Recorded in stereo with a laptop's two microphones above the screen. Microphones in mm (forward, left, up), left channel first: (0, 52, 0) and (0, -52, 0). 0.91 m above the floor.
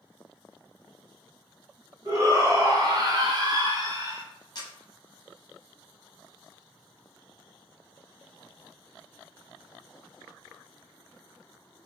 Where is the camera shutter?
45° left (ahead or behind), 0.8 m.